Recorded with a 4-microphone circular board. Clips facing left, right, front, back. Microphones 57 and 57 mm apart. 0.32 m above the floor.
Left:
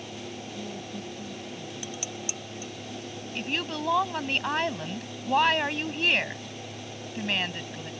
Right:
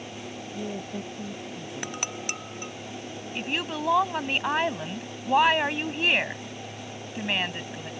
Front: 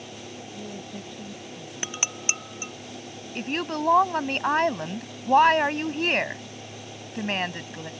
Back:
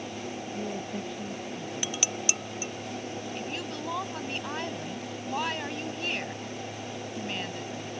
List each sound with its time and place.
0.5 s a woman speaking: 105° right
1.8 s dishes clattering: 60° right
3.4 s a woman speaking: 15° right